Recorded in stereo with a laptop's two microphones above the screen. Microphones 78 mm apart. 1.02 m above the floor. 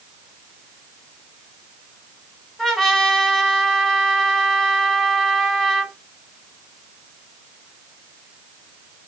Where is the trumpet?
Centre (ahead or behind), 1.4 m.